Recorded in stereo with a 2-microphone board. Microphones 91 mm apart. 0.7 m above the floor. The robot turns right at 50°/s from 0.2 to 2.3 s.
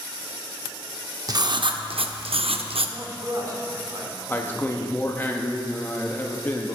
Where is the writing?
140° right, 0.5 m; by 3.0 s 85° right, 0.5 m.